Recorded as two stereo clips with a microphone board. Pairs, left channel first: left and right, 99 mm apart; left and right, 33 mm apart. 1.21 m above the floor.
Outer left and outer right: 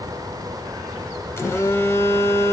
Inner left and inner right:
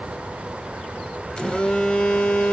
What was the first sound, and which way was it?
A phone buzzing, 25° left (ahead or behind).